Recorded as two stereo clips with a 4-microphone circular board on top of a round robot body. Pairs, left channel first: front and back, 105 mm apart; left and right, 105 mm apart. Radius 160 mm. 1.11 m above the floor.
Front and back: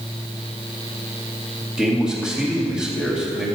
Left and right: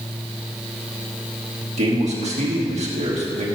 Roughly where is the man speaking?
Right.